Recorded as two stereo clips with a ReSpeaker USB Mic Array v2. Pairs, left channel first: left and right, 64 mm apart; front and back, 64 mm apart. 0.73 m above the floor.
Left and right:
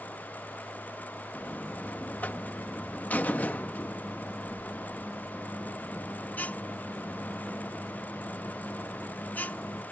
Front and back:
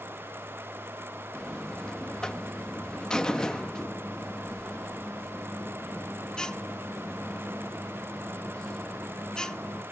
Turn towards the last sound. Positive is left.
turn(degrees=65)